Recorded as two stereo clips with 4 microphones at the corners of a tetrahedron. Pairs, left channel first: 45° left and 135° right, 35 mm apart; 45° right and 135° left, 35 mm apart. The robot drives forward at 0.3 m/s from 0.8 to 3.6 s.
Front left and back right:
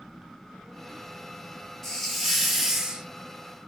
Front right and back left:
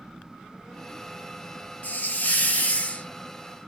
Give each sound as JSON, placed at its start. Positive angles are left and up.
{"t": 1.8, "sound": "a hiss", "azimuth_deg": -35, "distance_m": 0.7}